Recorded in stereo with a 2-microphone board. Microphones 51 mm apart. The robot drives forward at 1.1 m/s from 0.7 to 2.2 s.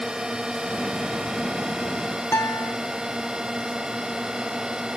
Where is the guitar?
65° left (ahead or behind).